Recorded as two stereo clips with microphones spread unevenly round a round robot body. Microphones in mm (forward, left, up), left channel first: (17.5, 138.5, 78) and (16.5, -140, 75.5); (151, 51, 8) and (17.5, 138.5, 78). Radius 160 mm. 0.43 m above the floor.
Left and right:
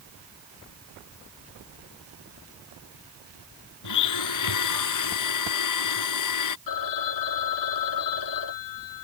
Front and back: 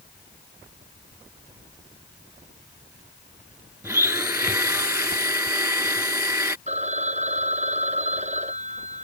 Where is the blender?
75° left.